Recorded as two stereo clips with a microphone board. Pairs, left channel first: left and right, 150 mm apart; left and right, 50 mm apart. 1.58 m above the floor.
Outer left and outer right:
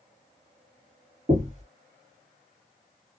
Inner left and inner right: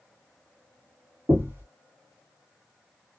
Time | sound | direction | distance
1.3 | knocking | 50° right (ahead or behind) | 1.5 m